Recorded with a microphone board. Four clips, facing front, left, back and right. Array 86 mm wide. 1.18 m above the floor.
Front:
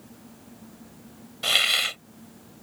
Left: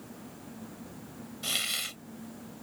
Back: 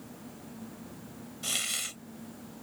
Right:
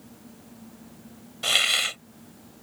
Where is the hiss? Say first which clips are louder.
Right 12 dB, front 14 dB; 40° right.